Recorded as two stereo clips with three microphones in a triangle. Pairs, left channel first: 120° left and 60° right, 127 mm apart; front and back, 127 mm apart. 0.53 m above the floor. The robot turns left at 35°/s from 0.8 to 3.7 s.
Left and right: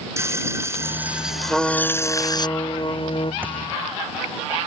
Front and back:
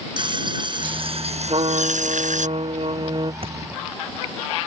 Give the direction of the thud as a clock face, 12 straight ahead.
5 o'clock.